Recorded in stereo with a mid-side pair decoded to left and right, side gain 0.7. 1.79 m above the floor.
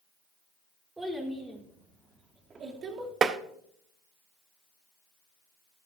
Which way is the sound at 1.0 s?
10° right.